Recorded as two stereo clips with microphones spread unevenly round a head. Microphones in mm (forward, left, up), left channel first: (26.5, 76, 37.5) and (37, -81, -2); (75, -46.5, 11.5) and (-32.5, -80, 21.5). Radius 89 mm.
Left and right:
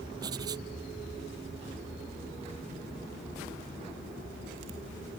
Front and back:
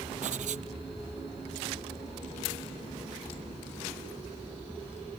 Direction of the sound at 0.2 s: 155° right.